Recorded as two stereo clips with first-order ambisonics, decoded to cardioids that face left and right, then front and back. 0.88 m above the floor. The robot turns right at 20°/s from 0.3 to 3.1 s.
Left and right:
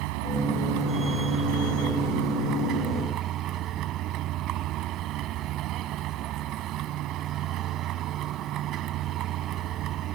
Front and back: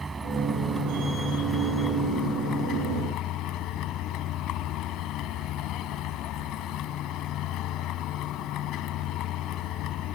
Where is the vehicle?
100° right; by 10.1 s 45° right.